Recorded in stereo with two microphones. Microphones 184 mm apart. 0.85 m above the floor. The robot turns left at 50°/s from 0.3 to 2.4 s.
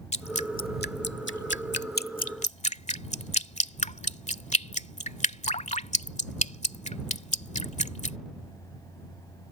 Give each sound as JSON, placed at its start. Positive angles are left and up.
{"t": 0.1, "sound": "dripping", "side_deg": 35}